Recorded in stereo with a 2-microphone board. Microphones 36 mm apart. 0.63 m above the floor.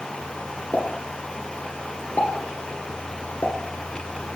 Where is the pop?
55° left (ahead or behind), 1.5 m.